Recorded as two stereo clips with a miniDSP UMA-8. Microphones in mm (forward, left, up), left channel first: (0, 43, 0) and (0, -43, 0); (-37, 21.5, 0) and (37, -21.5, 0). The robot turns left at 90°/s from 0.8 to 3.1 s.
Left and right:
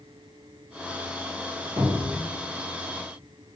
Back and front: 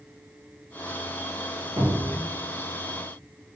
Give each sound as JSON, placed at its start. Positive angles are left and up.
{"t": 1.8, "sound": "a cupboard door", "azimuth_deg": -65, "distance_m": 1.6}